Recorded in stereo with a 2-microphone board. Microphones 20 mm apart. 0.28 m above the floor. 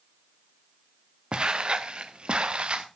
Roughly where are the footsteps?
Right.